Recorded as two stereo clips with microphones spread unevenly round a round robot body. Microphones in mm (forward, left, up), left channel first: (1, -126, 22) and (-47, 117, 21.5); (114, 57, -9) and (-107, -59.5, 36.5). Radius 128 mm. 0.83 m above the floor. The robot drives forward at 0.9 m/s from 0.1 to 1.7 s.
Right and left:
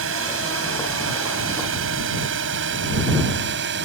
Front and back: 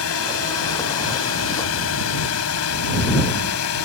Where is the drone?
60° left; by 3.9 s 55° left.